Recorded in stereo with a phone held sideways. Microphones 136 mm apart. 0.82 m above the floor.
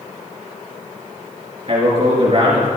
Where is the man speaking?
50° right (ahead or behind), 3 m.